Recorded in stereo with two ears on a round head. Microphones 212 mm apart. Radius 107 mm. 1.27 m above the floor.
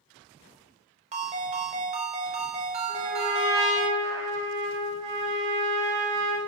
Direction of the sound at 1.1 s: 30° right (ahead or behind).